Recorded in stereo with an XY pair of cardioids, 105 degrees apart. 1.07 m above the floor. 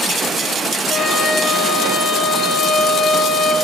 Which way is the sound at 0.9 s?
45° left.